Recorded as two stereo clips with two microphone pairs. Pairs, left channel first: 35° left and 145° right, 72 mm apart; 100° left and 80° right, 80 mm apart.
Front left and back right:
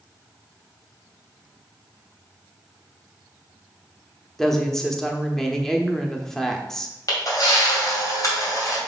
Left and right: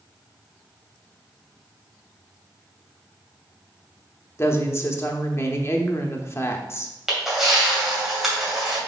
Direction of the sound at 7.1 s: 5° left.